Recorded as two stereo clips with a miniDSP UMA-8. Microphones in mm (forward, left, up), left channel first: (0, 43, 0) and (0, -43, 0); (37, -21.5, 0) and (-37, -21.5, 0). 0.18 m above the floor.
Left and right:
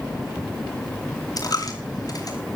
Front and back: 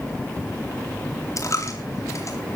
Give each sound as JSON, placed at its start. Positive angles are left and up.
{"t": 1.4, "sound": "a dropped coin", "azimuth_deg": 45, "distance_m": 2.5}